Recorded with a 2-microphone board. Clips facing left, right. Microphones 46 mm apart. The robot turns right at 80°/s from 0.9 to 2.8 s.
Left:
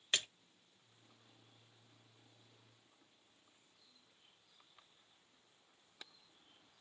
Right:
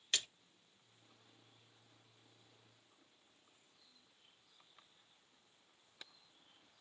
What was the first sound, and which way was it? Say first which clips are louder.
A splash: left 2 dB; 30° left (ahead or behind).